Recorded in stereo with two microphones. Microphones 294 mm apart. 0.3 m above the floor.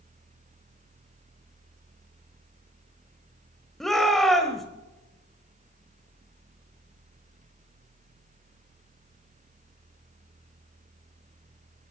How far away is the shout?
About 1.3 m.